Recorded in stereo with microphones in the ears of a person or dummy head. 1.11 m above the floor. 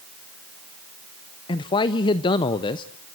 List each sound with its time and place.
1.5 s a man speaking: 25° left (ahead or behind), 0.5 m